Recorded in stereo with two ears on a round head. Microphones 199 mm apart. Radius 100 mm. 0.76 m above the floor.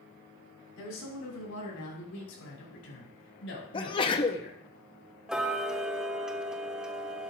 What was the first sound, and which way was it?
A woman speaking, 85° left.